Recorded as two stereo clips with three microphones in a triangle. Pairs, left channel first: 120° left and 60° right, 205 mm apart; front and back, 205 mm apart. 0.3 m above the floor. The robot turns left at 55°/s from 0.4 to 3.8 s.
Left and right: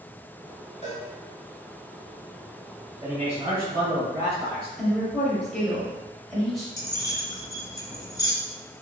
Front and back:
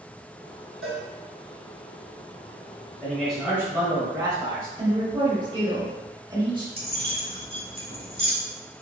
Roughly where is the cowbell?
Behind.